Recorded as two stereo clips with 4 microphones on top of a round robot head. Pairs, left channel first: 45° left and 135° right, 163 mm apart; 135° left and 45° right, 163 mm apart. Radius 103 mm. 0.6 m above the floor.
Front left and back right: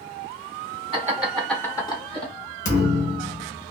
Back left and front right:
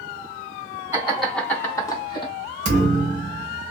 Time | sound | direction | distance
0.9 | laughter | 105° right | 1.3 m
2.6 | a thud | straight ahead | 1.0 m